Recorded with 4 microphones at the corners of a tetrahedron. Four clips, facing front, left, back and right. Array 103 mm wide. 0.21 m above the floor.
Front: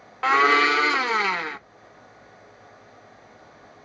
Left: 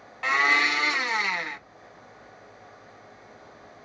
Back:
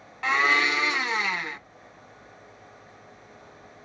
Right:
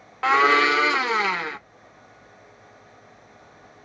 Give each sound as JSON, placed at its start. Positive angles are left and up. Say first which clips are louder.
{"t": 0.2, "sound": "a blender", "louder": "right 5 dB, front 5 dB", "azimuth_deg": -45, "distance_m": 0.5}